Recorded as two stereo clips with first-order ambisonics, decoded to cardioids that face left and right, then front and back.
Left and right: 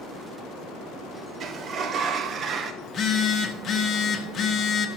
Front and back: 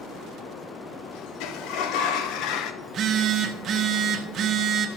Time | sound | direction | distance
1.4 | a sliding door | 30° right | 0.7 m
2.8 | a phone buzzing | 135° left | 0.8 m